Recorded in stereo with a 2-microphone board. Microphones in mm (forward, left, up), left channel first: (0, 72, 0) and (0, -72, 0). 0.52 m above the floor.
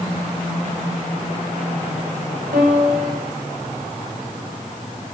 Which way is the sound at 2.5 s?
80° right.